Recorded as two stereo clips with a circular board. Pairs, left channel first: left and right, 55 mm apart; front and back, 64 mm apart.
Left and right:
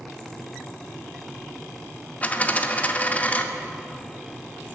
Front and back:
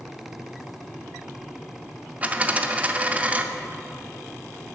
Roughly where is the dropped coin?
Behind left.